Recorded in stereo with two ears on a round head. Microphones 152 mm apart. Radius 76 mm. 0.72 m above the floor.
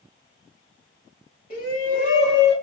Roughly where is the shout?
Left.